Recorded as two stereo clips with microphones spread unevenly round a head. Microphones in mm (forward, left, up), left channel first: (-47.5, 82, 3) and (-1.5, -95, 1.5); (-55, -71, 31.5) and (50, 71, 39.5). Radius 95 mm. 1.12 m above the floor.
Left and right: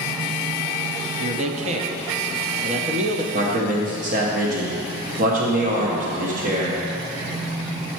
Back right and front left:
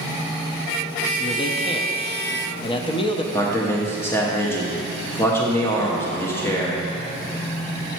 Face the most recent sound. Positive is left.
turn(degrees=-60)